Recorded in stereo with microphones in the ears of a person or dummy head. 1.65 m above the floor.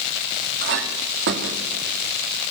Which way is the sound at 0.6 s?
65° right (ahead or behind).